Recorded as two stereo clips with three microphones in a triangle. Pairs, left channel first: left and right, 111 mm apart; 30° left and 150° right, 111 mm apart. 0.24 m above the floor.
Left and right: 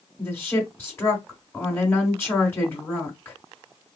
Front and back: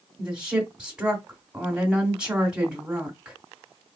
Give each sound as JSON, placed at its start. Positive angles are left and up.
{"t": 0.2, "sound": "a woman speaking", "azimuth_deg": 140, "distance_m": 1.7}